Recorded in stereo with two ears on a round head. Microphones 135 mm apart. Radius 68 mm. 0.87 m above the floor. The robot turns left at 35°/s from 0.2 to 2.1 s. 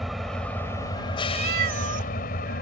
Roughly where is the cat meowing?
Right.